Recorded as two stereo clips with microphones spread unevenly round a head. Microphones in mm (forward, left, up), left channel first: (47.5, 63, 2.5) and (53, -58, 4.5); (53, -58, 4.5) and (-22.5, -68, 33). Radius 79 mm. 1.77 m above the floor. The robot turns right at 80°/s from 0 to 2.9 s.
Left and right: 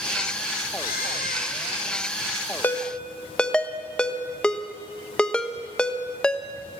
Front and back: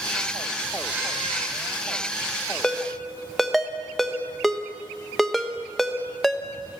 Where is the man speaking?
No man speaking in this recording.